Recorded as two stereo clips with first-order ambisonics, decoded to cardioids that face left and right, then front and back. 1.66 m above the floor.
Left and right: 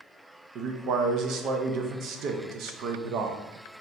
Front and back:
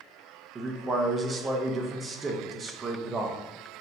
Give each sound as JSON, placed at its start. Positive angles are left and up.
{"t": 0.6, "sound": "a man speaking", "azimuth_deg": -115, "distance_m": 0.6}